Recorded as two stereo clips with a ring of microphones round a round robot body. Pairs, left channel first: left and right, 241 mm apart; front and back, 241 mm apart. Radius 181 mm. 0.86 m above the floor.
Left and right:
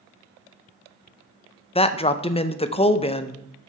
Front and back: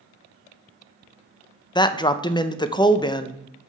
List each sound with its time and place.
1.8 s a man speaking: 55° left, 0.6 m